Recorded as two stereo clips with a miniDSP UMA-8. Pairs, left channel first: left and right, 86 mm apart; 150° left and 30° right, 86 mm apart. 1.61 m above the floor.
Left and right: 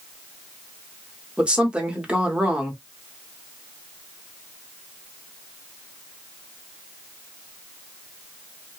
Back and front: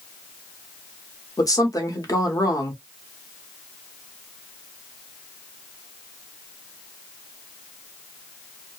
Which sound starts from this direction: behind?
A woman speaking, at 1.4 s.